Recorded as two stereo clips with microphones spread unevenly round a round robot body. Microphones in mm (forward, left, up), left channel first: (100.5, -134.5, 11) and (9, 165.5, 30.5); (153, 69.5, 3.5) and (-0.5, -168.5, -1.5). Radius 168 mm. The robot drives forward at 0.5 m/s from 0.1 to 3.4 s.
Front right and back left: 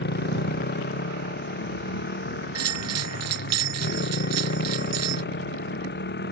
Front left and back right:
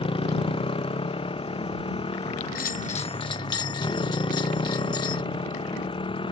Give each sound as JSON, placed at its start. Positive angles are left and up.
{"t": 0.0, "sound": "a motorcycle", "azimuth_deg": -15}
{"t": 2.5, "sound": "a bell", "azimuth_deg": 105}